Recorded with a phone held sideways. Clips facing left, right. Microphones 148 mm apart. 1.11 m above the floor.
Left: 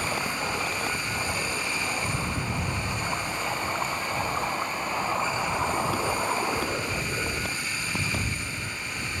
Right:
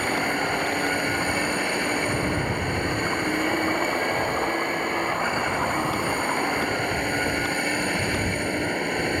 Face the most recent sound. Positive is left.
turn(degrees=-60)  # may be behind; listen again after turning